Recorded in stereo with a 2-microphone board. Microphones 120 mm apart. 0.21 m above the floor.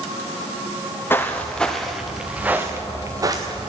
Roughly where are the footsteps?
Left.